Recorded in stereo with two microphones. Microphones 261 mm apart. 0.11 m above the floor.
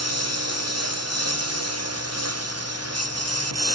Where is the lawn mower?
70° right (ahead or behind); by 3.8 s 65° right (ahead or behind).